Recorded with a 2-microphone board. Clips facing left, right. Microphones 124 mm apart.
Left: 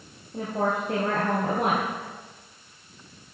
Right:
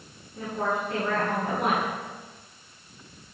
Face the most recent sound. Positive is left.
turn(degrees=70)  # may be behind; listen again after turning